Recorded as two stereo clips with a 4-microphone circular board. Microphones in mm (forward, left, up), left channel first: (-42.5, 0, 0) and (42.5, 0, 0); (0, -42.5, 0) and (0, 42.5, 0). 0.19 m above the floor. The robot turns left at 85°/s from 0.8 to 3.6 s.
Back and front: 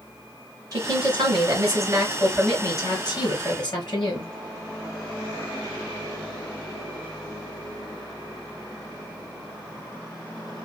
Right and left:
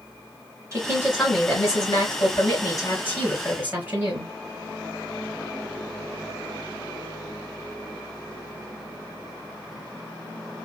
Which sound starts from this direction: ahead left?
A woman speaking, at 0.7 s.